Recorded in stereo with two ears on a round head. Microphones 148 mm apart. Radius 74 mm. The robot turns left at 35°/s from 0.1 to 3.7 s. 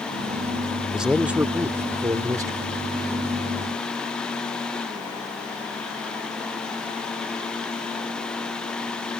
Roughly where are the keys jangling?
No keys jangling in this recording.